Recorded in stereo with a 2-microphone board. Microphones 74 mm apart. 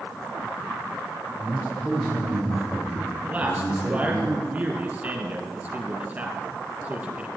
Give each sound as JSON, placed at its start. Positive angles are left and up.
{"t": 1.4, "sound": "a man speaking", "side_deg": -40, "distance_m": 2.5}
{"t": 3.2, "sound": "a man speaking", "side_deg": -25, "distance_m": 3.0}